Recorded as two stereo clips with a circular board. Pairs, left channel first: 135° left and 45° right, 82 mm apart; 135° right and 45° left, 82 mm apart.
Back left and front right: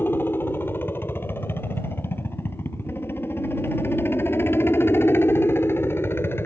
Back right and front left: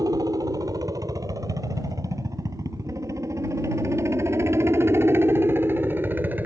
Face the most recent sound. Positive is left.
turn(degrees=95)